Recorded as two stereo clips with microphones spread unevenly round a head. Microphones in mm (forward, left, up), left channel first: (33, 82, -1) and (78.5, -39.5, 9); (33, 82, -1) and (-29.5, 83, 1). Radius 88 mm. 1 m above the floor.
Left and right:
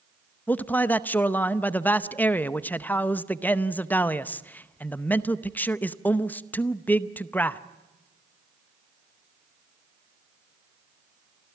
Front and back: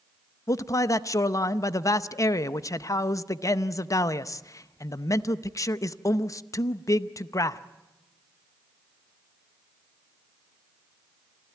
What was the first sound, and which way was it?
A man speaking, 35° left.